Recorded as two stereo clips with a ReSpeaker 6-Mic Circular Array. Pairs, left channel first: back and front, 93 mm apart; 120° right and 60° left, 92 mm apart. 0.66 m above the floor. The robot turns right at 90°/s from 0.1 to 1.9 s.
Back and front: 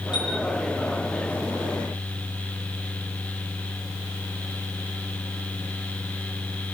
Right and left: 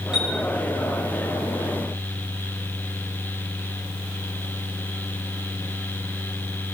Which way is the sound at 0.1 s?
140° left.